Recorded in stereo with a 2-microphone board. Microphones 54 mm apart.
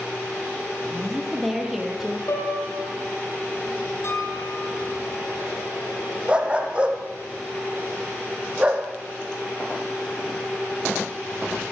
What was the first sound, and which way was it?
A woman speaking, 5° left (ahead or behind).